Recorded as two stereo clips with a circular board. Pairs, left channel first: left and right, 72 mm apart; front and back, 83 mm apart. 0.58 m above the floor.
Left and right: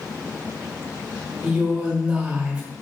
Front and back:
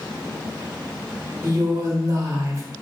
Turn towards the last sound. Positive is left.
turn(degrees=-155)